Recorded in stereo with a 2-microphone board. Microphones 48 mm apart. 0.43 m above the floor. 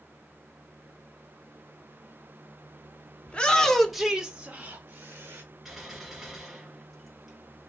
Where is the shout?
25° left (ahead or behind), 1.0 m; by 5.4 s 50° right (ahead or behind), 1.3 m.